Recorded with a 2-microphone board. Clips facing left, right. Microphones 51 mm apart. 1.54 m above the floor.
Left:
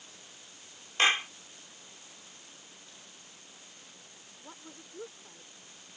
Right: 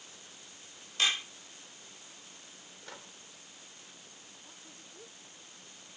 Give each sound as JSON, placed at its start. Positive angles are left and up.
{"t": 1.0, "sound": "a clap", "side_deg": 40}
{"t": 2.8, "sound": "a microwave", "side_deg": -80}
{"t": 4.4, "sound": "a woman speaking", "side_deg": 45}